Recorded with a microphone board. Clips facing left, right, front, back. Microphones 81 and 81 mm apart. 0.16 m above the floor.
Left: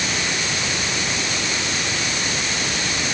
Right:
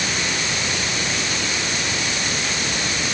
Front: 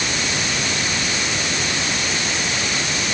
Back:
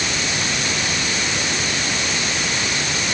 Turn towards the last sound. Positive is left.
No sound to turn to.